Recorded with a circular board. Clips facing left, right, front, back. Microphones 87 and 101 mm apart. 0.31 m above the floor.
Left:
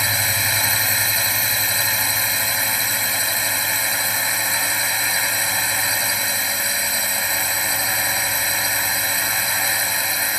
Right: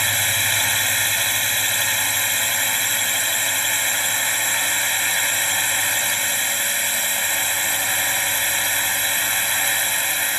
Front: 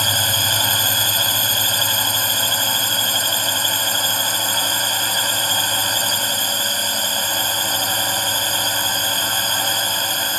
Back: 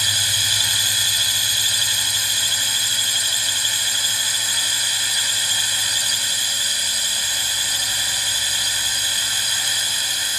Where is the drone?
5° left.